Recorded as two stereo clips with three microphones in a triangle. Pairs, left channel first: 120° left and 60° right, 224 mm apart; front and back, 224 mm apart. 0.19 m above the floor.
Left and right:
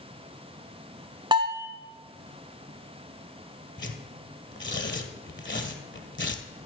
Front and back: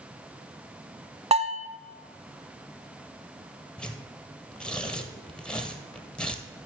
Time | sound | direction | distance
1.3 | a bell | 125° right | 1.1 m
3.8 | tearing paper | 85° left | 1.5 m